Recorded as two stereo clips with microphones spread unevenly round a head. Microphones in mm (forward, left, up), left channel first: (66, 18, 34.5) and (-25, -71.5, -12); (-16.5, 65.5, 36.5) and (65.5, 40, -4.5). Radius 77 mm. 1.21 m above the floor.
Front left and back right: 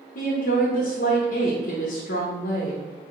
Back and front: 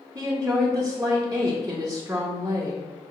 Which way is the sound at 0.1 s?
45° left.